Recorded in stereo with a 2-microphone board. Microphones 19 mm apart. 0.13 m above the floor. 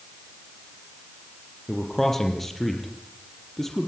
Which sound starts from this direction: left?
A man speaking, at 1.7 s.